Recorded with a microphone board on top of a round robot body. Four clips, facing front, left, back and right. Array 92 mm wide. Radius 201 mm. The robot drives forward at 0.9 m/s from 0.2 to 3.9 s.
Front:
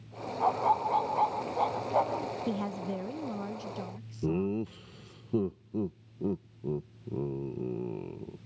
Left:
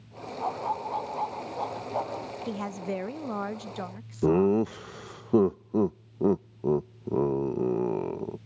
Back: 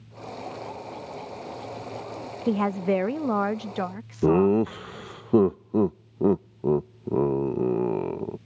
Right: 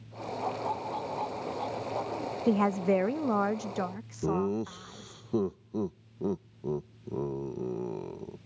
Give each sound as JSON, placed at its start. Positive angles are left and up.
{"t": 0.4, "sound": "a dog barking", "azimuth_deg": 15}
{"t": 2.5, "sound": "a woman speaking", "azimuth_deg": -140}
{"t": 4.2, "sound": "laughter", "azimuth_deg": 150}